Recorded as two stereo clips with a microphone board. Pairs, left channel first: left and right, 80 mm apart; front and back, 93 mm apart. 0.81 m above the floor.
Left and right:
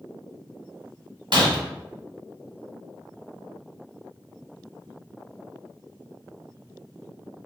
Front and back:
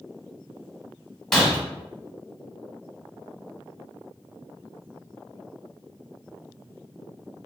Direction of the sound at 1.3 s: 85° right.